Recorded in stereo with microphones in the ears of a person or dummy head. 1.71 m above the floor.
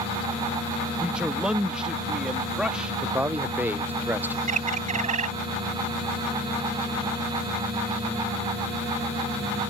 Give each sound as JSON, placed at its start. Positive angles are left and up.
{"t": 1.0, "sound": "a man speaking", "side_deg": 0}
{"t": 3.0, "sound": "a man speaking", "side_deg": -10}
{"t": 4.5, "sound": "a bird", "side_deg": -35}